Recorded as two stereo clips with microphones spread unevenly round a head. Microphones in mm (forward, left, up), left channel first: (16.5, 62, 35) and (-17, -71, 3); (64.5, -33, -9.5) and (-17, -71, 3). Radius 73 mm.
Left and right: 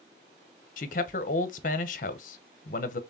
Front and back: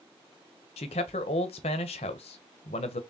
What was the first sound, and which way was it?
A man speaking, 45° left.